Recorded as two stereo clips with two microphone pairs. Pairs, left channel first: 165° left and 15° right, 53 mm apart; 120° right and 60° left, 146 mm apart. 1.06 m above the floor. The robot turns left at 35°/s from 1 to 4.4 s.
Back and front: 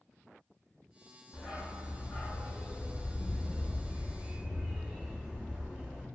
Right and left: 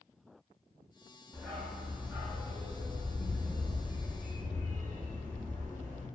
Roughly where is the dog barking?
Behind.